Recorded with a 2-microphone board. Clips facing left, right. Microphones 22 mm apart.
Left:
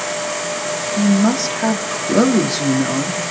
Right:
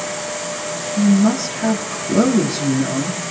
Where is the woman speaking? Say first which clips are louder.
Right 1 dB; 30° left (ahead or behind), 1.8 m.